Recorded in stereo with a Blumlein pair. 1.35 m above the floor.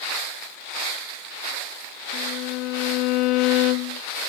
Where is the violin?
40° left, 0.7 m.